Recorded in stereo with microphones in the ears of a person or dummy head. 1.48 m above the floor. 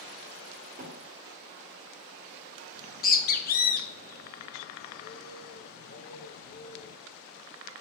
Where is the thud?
45° right (ahead or behind), 1.8 m.